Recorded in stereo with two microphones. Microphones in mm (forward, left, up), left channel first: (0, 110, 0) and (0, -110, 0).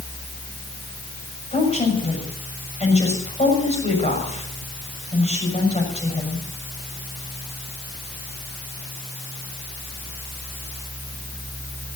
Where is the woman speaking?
30° left (ahead or behind), 6.5 m.